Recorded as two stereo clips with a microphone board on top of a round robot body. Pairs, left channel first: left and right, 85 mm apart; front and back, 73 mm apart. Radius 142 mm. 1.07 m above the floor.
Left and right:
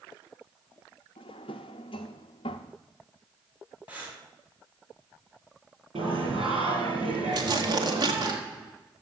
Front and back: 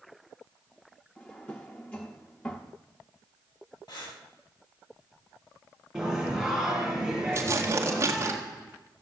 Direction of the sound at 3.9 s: 15° right.